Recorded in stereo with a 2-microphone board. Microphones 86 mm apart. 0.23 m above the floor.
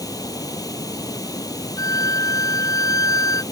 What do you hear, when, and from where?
0.0 s running water: 45° left (ahead or behind)
1.8 s a violin: 40° left (ahead or behind)